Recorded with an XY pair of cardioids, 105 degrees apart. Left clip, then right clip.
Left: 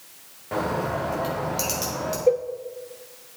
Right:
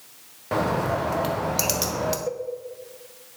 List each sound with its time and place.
0.5 s a bird: 45° right, 1.1 m
2.3 s a cowbell: 60° left, 0.6 m